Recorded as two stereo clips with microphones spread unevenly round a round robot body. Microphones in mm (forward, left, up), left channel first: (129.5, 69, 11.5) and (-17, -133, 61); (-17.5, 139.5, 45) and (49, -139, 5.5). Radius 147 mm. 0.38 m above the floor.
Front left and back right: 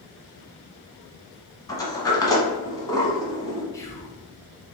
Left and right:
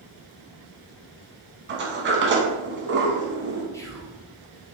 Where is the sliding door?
20° right, 1.0 m.